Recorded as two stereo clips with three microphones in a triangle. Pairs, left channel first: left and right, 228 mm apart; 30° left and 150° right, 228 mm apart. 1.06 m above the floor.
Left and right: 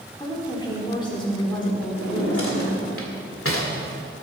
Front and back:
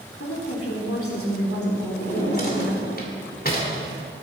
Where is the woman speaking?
20° left, 3.5 m.